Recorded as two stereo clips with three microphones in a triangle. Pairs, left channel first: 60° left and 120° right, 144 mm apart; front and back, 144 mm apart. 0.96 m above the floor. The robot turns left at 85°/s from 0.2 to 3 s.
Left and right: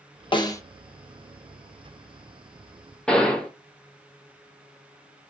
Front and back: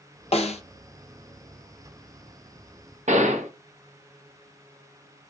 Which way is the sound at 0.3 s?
20° left.